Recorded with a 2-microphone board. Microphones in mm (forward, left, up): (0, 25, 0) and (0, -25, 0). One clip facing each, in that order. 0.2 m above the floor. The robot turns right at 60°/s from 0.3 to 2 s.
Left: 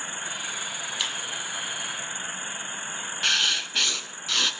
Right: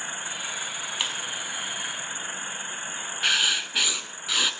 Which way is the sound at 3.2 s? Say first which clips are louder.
Right 1 dB; 10° right (ahead or behind).